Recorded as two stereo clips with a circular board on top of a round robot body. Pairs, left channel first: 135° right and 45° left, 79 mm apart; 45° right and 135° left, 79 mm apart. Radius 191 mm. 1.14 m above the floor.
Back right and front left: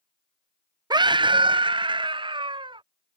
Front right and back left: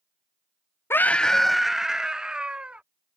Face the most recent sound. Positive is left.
turn(degrees=60)